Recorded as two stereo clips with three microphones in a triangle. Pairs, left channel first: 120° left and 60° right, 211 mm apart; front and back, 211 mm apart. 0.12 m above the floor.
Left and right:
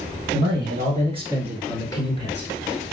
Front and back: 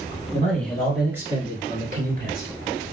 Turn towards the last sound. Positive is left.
turn(degrees=160)